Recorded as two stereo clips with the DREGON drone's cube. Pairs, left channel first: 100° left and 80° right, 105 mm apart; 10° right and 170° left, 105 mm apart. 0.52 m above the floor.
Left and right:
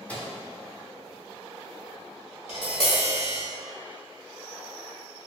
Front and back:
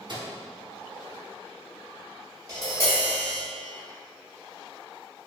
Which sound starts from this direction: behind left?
Tapping, at 2.5 s.